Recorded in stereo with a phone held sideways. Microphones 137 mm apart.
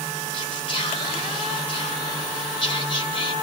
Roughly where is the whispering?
Left.